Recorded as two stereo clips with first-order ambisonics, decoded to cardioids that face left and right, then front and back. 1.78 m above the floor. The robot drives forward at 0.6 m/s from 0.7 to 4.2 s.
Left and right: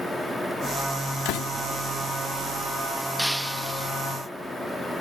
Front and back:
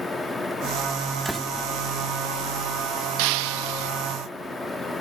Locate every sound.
1.2 s a door slam: 85° left; by 1.5 s 90° left
3.2 s breaking glass: straight behind